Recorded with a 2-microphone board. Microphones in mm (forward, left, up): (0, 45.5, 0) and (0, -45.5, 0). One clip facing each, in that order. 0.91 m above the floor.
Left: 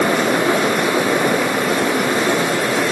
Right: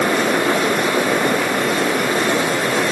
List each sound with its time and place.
Only background noise.